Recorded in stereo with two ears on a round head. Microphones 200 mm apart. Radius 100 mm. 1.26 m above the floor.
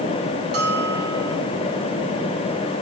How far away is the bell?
About 4.5 m.